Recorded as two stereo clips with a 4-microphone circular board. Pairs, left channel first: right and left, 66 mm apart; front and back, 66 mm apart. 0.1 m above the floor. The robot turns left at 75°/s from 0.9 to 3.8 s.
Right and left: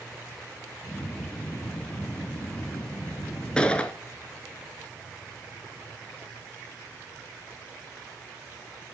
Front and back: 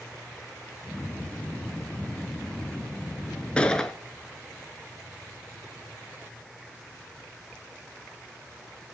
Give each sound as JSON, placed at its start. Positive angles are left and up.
{"t": 3.6, "sound": "a gunshot", "azimuth_deg": -40, "distance_m": 0.6}